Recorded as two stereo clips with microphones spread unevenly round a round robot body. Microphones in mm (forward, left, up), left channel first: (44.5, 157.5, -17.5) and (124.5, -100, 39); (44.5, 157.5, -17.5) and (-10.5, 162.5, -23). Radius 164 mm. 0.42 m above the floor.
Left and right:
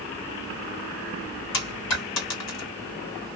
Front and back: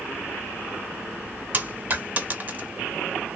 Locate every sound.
1.5 s a dropped coin: 115° left, 1.4 m